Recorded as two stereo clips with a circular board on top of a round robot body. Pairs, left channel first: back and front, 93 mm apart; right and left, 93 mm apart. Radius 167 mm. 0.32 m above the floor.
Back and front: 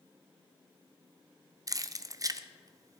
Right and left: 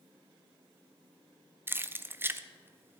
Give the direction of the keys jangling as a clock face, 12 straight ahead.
11 o'clock.